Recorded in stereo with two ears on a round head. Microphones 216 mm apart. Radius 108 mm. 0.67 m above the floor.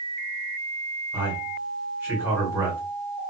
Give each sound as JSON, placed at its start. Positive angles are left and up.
{"t": 1.1, "sound": "a man speaking", "side_deg": -10, "distance_m": 1.6}